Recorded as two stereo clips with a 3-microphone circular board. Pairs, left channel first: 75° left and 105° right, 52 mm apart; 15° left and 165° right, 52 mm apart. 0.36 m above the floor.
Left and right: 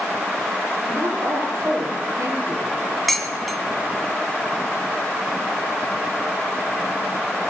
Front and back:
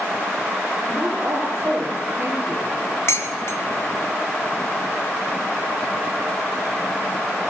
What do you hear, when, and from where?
0.8 s a woman speaking: 110° right, 6 m
3.1 s dishes clattering: 15° right, 2.5 m